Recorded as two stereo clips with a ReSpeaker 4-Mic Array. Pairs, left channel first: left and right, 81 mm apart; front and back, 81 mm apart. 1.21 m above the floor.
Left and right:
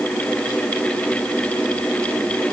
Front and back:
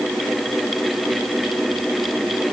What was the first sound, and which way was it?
Only background noise.